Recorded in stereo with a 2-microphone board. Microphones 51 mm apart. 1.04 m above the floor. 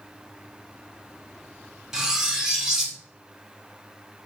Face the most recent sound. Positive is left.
turn(degrees=-10)  # may be behind; listen again after turning